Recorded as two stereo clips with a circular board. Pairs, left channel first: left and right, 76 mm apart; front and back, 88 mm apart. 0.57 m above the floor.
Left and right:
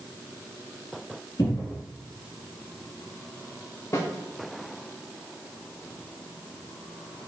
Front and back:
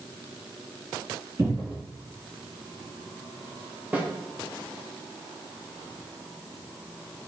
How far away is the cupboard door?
About 2 m.